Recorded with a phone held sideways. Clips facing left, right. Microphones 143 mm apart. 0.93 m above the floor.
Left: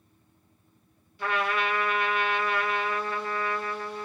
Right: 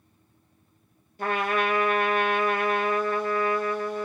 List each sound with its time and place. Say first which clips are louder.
1.2 s a trumpet: right 3 dB; 45° right (ahead or behind), 1.2 m